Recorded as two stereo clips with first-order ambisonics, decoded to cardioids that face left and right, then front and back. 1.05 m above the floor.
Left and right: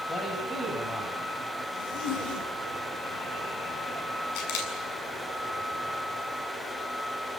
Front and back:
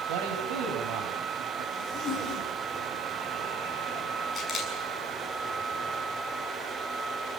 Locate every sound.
0.1 s a man speaking: 165° left, 6.5 m
1.7 s a zipper: 65° left, 7 m
4.3 s a camera shutter: 70° left, 7 m